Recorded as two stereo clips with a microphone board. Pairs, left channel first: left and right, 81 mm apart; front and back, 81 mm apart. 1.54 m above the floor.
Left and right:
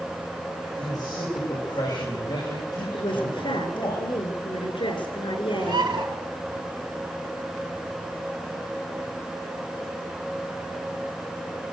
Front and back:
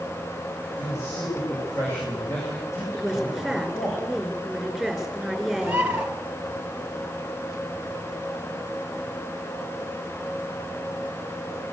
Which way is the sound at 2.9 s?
90° left.